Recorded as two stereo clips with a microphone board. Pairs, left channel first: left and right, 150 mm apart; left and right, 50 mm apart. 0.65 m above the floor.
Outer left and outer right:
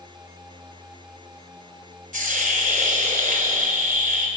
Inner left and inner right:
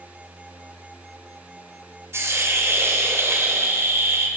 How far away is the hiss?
About 3 m.